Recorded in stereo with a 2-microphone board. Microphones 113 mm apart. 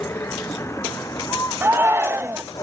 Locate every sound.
0.0 s a vehicle: 20° left (ahead or behind); by 2.6 s 35° left (ahead or behind)
1.6 s a shout: 20° right (ahead or behind)